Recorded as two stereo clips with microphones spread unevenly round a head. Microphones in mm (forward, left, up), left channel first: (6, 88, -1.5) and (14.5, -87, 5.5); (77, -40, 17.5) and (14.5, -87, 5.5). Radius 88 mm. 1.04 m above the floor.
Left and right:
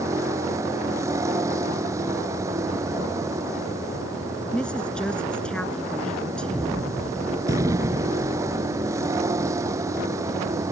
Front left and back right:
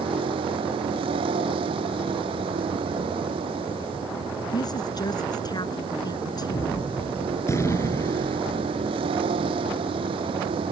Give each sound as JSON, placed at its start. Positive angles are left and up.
{"t": 0.0, "sound": "a vehicle", "azimuth_deg": -160}
{"t": 4.5, "sound": "a woman speaking", "azimuth_deg": 5}
{"t": 6.5, "sound": "a gunshot", "azimuth_deg": -15}